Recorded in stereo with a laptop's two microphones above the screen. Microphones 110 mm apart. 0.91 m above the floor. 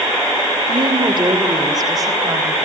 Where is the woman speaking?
50° right (ahead or behind), 2.5 m; by 2.5 s 30° right (ahead or behind), 4 m.